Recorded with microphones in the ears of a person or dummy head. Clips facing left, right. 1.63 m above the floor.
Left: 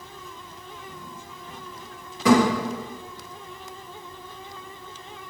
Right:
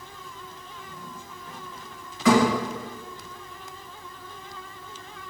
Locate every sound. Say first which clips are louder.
2.2 s a thud: left 2 dB; 30° left (ahead or behind), 1.8 m